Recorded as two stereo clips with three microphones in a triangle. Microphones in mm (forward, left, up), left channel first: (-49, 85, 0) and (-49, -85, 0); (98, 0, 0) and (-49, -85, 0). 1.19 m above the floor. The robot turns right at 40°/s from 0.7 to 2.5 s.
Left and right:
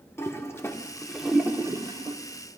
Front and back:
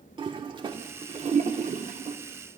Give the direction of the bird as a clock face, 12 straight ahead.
No bird in this recording.